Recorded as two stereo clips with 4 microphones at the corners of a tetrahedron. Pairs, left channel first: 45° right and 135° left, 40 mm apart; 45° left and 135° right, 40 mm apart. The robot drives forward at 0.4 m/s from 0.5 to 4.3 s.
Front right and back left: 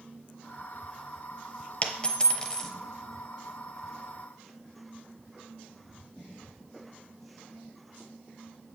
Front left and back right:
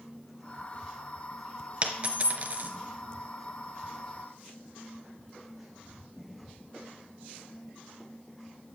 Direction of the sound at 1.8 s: 90° right.